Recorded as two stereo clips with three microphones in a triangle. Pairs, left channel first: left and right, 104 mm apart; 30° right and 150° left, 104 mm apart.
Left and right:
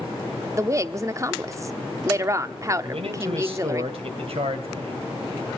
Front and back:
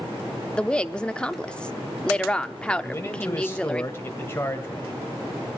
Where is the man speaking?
95° right, 2.5 m.